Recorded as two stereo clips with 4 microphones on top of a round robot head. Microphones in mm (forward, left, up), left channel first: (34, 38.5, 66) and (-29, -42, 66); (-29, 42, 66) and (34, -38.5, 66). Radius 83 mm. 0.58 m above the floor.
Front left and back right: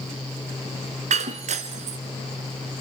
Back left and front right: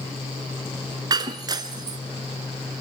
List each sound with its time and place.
1.1 s breaking glass: 110° right, 1.6 m